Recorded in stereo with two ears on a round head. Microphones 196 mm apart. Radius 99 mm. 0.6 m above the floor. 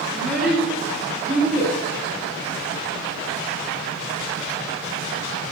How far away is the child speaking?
About 3.5 m.